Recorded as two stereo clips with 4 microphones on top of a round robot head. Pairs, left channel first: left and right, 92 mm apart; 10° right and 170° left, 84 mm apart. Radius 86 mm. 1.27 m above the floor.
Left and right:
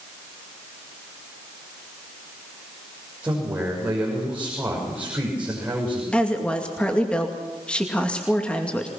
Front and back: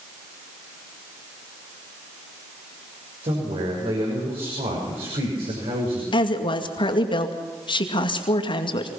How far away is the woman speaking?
About 2.5 m.